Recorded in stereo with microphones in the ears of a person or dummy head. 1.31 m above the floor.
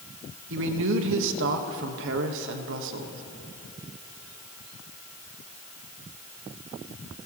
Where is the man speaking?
70° right (ahead or behind), 1.3 m.